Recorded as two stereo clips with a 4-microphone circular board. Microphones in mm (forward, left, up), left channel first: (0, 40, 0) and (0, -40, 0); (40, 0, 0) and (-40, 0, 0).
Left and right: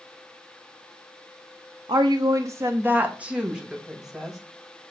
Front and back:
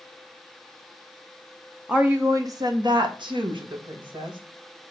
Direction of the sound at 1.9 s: 100° right.